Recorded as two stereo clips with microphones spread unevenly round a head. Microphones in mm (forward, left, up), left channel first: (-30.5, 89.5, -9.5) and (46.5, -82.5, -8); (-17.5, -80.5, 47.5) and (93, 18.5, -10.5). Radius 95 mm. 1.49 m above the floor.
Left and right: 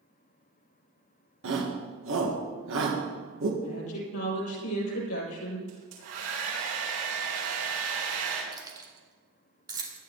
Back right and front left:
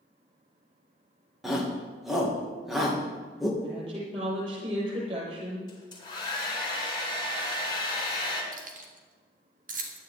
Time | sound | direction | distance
1.4 | a shout | 45° right | 1.8 m
3.6 | a woman speaking | 105° left | 7 m
5.7 | a hair dryer | 75° right | 7 m
8.5 | keys jangling | 5° left | 2.5 m